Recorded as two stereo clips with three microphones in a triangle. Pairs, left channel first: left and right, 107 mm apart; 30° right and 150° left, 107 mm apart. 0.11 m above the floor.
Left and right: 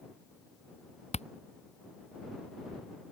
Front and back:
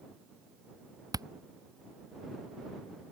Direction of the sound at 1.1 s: 95° left.